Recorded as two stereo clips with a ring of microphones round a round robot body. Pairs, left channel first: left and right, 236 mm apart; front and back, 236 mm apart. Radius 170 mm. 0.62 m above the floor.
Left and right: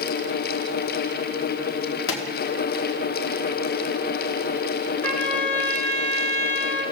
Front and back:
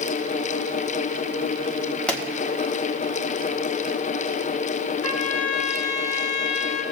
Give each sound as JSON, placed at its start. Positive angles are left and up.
{"t": 2.1, "sound": "a pop", "azimuth_deg": 85, "distance_m": 1.9}
{"t": 5.0, "sound": "a trumpet", "azimuth_deg": 10, "distance_m": 3.0}